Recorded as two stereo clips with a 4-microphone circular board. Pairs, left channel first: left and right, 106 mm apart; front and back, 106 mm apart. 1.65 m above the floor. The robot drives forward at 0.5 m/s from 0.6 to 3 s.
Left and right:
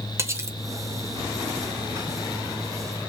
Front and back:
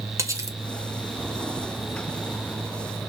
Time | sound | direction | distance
0.2 | cutlery clinking | 135° right | 0.9 m